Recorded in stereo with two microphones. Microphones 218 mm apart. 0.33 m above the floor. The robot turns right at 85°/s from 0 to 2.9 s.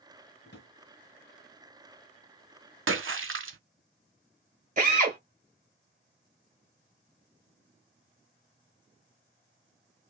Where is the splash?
65° right (ahead or behind), 0.5 m.